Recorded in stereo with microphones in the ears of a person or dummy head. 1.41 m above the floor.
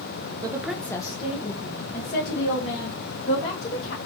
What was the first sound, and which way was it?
A woman speaking, 20° right (ahead or behind).